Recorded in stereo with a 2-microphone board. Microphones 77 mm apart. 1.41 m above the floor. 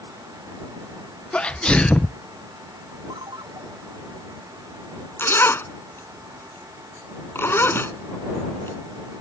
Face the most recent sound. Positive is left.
turn(degrees=30)  # may be behind; listen again after turning